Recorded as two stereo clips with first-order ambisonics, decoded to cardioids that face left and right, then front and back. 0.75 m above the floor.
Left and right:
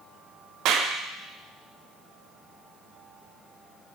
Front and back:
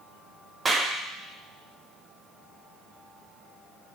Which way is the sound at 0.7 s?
110° right.